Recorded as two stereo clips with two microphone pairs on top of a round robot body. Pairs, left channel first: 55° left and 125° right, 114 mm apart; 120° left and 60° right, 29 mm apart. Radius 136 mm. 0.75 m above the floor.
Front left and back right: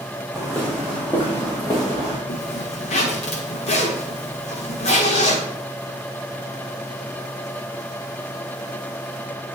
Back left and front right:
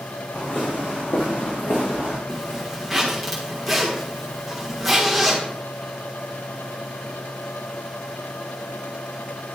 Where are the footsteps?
145° left, 2.5 m; by 2.2 s 105° left, 2.5 m.